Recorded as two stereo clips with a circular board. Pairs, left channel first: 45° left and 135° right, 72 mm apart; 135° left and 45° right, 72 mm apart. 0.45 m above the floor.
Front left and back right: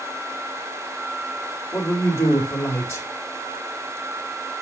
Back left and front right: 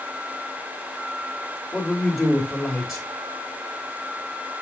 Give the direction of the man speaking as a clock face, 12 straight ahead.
10 o'clock.